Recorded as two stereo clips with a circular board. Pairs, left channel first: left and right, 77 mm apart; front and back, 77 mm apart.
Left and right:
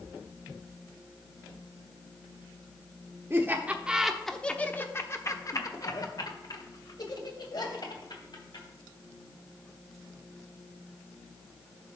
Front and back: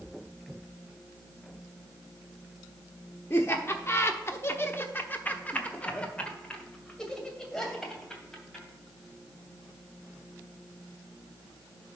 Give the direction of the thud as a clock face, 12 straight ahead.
I don't hear a thud.